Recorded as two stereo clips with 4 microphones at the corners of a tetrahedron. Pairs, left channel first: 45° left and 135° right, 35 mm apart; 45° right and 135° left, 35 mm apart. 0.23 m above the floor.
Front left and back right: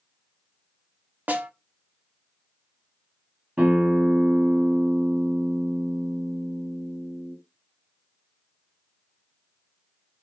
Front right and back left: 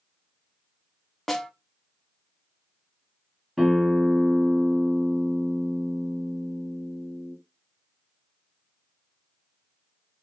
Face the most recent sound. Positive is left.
turn(degrees=-140)